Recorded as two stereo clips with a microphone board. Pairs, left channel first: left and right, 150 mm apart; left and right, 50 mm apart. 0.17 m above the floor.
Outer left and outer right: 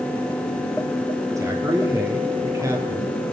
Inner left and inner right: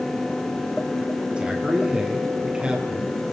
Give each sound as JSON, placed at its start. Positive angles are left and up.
{"t": 1.4, "sound": "a man speaking", "side_deg": -20, "distance_m": 4.5}